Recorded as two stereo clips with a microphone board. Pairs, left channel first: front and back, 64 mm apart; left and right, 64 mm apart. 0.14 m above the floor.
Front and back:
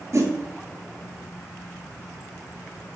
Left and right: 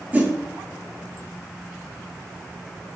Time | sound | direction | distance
0.1 | a whoosh | 150° right | 0.6 m